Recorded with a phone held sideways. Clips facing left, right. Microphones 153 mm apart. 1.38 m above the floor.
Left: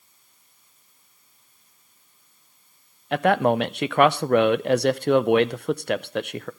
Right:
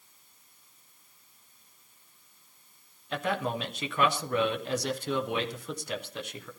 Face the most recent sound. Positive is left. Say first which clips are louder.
# left 11 dB
turn(degrees=70)  # may be behind; listen again after turning